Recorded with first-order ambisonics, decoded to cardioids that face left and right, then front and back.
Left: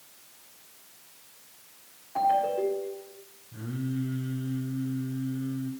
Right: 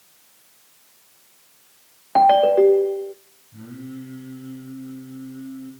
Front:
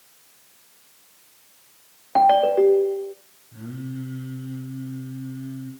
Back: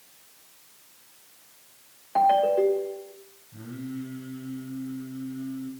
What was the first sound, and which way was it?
A ringtone, 65° right.